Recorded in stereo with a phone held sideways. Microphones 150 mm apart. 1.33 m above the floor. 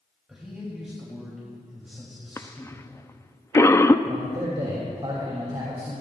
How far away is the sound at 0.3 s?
About 3 m.